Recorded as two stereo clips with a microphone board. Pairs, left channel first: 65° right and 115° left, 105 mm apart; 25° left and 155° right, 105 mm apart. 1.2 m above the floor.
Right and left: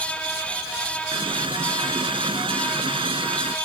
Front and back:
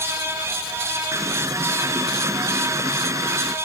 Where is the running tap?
145° left.